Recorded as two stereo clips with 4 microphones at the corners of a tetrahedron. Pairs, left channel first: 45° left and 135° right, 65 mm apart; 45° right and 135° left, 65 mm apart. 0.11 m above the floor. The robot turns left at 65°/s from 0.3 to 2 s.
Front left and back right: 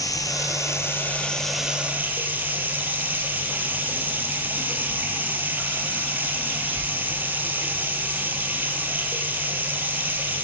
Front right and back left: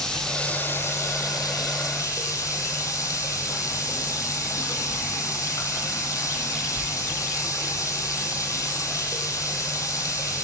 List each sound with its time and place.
0.0 s running water: 35° left, 1.6 m; by 10.4 s 75° right, 1.6 m